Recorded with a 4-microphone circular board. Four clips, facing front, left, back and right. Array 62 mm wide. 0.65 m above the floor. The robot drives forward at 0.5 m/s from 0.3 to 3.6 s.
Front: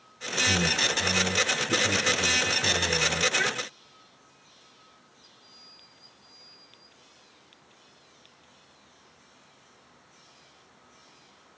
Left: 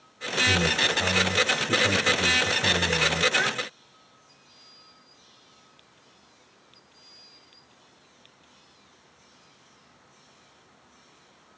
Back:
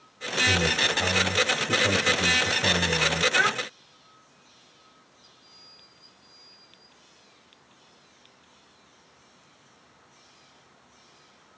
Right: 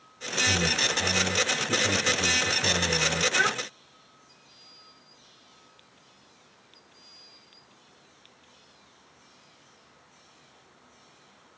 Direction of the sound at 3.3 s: 150° right.